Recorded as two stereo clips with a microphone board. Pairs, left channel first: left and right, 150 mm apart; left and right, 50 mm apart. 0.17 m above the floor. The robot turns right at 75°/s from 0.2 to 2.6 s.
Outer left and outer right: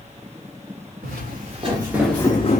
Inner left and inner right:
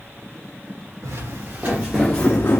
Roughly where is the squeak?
No squeak in this recording.